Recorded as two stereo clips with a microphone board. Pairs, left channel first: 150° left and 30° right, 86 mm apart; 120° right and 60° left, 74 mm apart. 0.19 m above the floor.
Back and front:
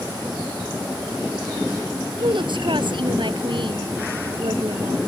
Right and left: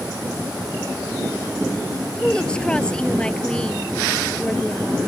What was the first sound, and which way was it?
A woman speaking, 40° right.